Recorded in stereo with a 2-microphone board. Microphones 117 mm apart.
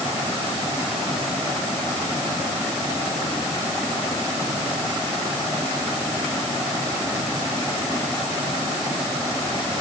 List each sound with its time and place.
Only background noise.